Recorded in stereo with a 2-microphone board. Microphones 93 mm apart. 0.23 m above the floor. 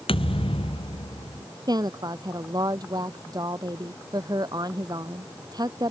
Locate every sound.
0.1 s a thud: 80° left
1.7 s a woman speaking: 45° right (ahead or behind)